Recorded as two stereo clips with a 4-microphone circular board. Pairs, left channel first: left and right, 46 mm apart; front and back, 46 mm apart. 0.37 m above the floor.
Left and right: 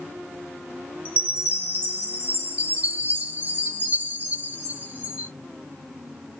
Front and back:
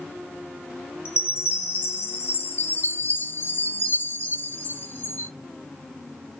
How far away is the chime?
About 1.6 m.